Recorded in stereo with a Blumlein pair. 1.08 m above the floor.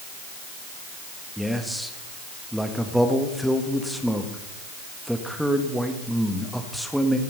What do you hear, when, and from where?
1.4 s a man speaking: straight ahead, 1.6 m